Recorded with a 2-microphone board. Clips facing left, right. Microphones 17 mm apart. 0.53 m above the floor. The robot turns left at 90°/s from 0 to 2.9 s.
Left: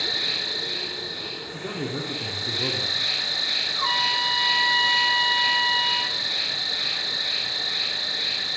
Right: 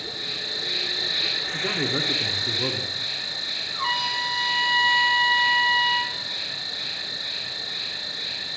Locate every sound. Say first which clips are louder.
0.0 s an insect: left 5 dB; 55° left, 0.8 m; by 8.6 s 155° left, 0.8 m
1.5 s a man speaking: right 6 dB; 40° right, 0.9 m; by 3.0 s 165° right, 0.9 m
3.7 s a trumpet: even; 50° right (ahead or behind), 1.9 m